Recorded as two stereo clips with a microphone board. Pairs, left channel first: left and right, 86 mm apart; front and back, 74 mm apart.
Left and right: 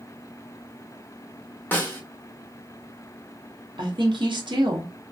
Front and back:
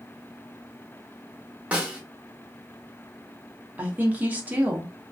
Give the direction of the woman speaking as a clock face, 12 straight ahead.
4 o'clock.